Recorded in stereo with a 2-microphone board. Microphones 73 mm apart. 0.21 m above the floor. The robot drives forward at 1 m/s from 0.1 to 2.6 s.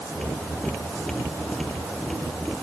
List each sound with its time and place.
Only background noise.